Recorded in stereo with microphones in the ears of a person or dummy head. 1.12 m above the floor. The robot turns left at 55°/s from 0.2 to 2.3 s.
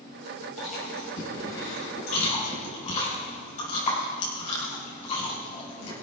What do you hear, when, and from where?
0.6 s chewing: 40° left (ahead or behind), 6 m; by 5.9 s 45° left (ahead or behind), 6 m